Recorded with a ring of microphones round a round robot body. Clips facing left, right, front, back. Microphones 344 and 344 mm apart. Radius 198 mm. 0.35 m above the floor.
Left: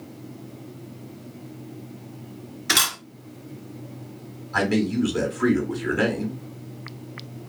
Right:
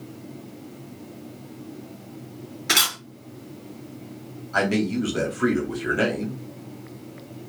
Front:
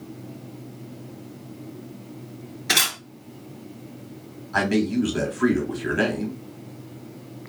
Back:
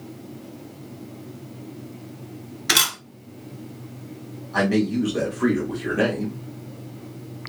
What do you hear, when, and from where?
2.7 s a camera shutter: straight behind, 1.0 m
4.5 s a man speaking: 10° left, 1.0 m